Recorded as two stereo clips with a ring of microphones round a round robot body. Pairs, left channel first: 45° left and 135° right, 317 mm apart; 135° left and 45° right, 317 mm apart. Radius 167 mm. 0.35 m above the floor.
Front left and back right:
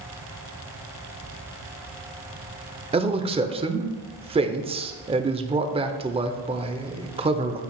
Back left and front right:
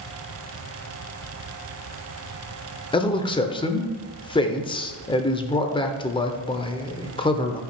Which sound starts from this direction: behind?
A man speaking, at 2.9 s.